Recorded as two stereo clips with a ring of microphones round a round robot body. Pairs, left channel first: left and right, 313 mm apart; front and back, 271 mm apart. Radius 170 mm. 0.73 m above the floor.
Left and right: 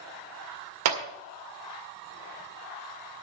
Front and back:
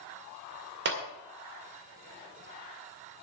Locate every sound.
0.8 s a clap: 125° right, 2.0 m